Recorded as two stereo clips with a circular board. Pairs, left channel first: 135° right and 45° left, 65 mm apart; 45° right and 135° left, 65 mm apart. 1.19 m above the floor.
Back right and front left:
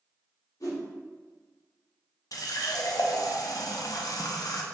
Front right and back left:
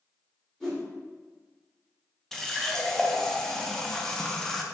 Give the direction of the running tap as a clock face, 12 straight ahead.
4 o'clock.